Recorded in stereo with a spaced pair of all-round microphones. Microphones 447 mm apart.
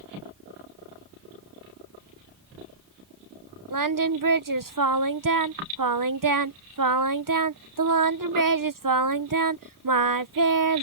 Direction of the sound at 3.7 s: 45° right (ahead or behind).